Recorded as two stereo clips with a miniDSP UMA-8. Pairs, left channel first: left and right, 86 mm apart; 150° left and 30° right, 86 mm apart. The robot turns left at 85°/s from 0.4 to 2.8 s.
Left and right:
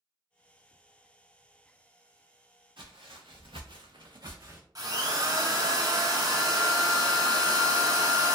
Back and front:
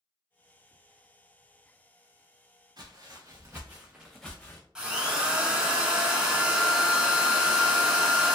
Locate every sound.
2.8 s footsteps: 70° right, 1.1 m; by 4.7 s 150° right, 0.7 m
4.8 s a drill: 110° right, 0.8 m